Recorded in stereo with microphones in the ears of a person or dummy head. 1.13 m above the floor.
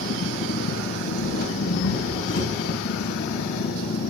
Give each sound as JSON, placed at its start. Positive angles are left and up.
{"t": 0.0, "sound": "an engine running", "side_deg": 65, "distance_m": 2.5}